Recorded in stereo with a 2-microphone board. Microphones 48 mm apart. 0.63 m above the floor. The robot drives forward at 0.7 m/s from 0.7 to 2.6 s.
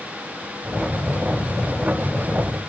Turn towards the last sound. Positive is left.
No sound to turn to.